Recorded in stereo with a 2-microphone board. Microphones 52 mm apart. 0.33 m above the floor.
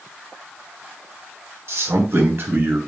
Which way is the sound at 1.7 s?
60° right (ahead or behind).